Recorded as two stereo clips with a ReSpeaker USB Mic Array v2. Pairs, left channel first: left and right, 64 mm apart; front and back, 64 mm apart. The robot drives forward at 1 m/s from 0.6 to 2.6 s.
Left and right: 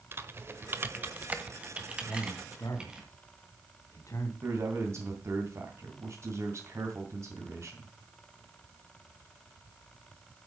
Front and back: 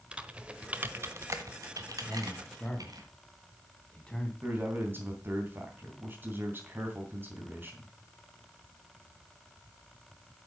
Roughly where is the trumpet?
No trumpet in this recording.